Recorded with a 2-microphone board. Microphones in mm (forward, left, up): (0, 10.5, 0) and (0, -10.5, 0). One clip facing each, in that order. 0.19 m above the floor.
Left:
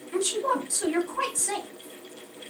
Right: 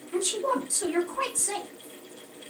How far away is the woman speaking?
About 1.2 m.